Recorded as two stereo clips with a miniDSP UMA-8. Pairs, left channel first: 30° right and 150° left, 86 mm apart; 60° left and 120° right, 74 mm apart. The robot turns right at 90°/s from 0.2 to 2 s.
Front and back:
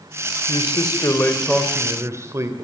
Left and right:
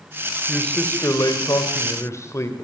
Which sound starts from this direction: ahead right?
A man speaking, at 0.5 s.